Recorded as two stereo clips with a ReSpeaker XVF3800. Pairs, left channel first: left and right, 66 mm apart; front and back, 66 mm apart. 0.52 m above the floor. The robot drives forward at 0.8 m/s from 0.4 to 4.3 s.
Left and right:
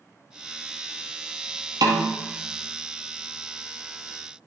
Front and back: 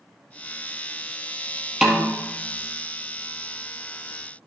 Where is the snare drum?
100° right, 1.8 m; by 2.2 s 110° right, 1.9 m.